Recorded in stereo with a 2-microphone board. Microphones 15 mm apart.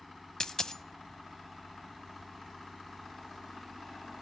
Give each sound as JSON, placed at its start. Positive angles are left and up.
{"t": 0.4, "sound": "a dropped coin", "side_deg": 45, "distance_m": 0.8}